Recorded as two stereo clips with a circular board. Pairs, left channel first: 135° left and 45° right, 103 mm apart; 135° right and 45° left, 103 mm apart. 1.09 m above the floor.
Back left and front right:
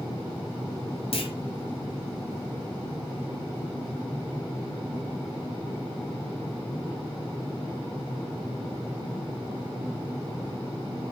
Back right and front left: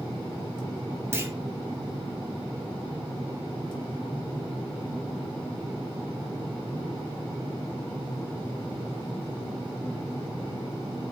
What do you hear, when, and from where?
1.1 s a clunk: 115° left, 0.6 m